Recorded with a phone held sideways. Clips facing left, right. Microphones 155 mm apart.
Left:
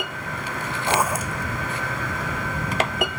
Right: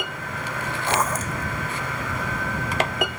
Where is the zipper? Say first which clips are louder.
Left 2 dB; 10° left (ahead or behind).